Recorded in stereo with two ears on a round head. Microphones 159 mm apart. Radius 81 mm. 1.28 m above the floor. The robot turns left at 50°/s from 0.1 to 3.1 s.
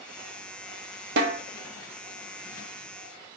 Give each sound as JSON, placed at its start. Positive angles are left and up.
{"t": 1.2, "sound": "a snare drum", "side_deg": -60, "distance_m": 0.7}